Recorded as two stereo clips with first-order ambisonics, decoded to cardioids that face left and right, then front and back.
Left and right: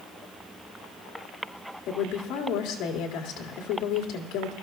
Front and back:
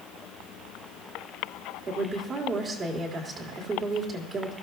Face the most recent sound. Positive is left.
turn(degrees=115)